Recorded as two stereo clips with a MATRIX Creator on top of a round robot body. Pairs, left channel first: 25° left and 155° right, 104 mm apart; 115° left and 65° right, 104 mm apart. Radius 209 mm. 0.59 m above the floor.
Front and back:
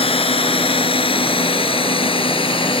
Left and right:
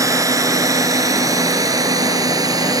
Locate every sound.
0.0 s a drone: 10° right; by 2.8 s 15° right